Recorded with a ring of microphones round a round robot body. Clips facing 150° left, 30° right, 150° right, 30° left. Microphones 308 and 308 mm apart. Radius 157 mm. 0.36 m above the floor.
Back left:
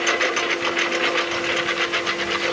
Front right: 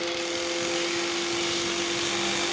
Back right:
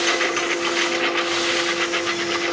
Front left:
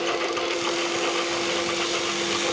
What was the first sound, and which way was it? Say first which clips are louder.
A lawn mower: back left 5 dB, back right 2 dB; 160° left.